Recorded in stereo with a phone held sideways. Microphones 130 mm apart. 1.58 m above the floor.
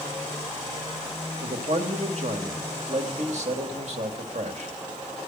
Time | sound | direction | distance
1.4 | a man speaking | 60° right (ahead or behind) | 2 m